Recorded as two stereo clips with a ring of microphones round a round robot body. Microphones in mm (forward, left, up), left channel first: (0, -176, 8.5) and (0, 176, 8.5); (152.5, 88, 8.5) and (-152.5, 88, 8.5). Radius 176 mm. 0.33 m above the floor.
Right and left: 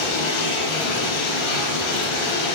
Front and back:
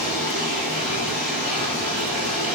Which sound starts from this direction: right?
Running water, at 0.0 s.